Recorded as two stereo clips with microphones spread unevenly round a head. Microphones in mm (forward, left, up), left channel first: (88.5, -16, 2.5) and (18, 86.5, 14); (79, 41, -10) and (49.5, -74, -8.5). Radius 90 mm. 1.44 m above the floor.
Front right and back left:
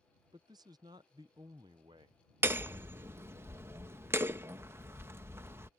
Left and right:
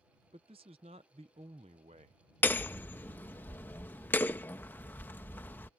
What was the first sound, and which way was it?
A man speaking, 165° right.